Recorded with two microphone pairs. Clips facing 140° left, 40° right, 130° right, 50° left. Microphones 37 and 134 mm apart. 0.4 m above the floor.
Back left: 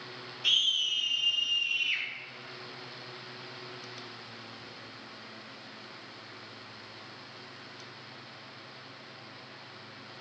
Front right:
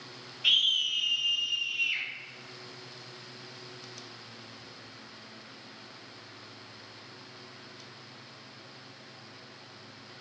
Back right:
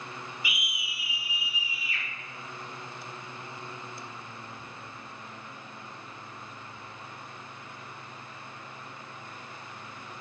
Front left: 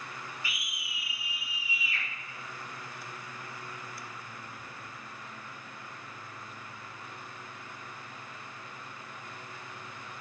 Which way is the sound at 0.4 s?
75° right.